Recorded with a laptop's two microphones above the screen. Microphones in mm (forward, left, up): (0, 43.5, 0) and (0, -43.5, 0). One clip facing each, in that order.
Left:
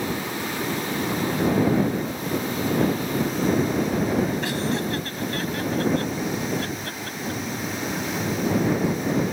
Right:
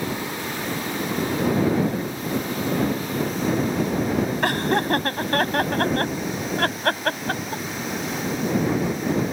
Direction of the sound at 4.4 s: 55° right (ahead or behind).